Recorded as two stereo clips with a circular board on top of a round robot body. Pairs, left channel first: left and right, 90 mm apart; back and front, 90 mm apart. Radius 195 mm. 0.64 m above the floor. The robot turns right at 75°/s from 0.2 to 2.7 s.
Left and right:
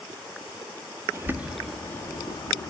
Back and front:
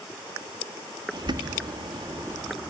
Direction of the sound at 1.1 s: 35° right.